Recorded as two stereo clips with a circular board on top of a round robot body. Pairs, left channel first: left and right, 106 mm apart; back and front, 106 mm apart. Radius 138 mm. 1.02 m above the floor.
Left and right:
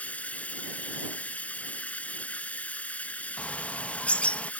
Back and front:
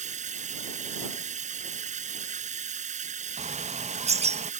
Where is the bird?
10° left.